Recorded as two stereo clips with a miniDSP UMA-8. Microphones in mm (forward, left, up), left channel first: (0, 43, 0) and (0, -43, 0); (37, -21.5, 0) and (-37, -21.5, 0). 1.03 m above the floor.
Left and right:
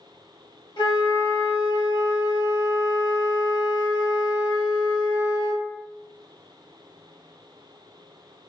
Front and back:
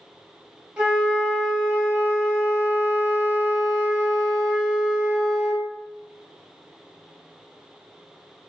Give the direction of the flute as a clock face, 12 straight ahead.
9 o'clock.